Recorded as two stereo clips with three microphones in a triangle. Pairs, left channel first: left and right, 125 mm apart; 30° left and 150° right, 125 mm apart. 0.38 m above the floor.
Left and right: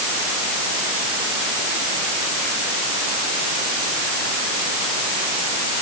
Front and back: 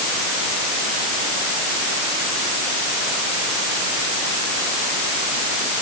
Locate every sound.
Only background noise.